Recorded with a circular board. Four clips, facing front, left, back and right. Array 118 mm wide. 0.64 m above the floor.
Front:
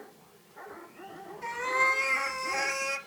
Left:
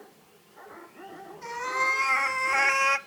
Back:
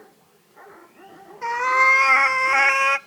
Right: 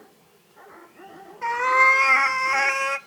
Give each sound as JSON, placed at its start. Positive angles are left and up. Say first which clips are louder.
{"t": 1.4, "sound": "a cat meowing", "louder": "right 10 dB, back 10 dB", "azimuth_deg": -135, "distance_m": 1.0}